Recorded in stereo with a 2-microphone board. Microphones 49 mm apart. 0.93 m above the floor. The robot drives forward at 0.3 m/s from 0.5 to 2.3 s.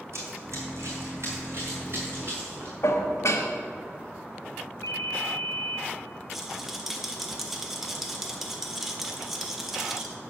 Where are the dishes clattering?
75° left (ahead or behind), 1.0 m.